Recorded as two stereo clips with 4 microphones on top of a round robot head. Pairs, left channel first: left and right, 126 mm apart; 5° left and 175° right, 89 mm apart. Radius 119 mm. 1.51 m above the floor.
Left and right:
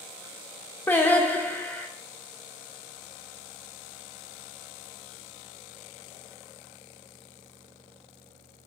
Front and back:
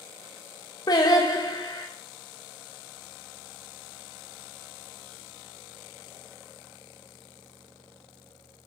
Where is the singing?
20° left, 0.6 m.